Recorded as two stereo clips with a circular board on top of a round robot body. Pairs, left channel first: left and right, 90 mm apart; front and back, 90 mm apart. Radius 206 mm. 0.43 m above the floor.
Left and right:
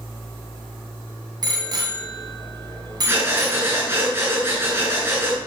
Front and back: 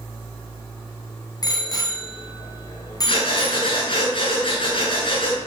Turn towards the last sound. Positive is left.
turn(degrees=-25)